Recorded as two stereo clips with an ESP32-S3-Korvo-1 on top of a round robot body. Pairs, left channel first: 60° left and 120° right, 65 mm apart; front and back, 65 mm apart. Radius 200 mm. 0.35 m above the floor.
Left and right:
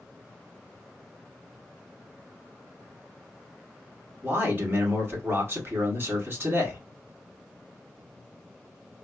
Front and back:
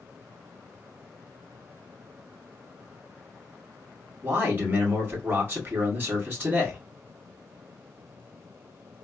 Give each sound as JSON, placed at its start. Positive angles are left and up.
{"t": 4.2, "sound": "a man speaking", "azimuth_deg": -140, "distance_m": 1.7}